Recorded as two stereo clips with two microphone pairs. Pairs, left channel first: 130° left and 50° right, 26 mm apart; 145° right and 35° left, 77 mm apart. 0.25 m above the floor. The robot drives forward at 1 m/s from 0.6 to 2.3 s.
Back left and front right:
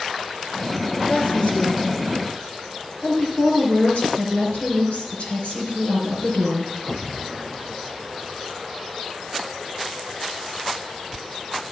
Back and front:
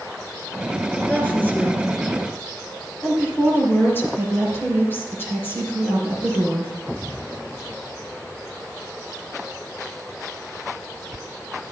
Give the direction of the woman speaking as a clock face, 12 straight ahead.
7 o'clock.